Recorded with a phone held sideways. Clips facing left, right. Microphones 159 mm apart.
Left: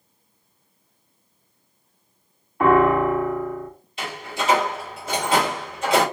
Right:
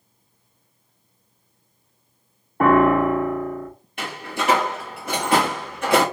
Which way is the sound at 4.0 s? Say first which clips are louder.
Right 1 dB; 55° right (ahead or behind).